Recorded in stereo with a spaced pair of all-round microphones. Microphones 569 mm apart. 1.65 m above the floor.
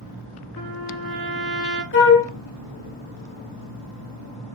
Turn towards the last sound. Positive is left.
turn(degrees=20)  # may be behind; listen again after turning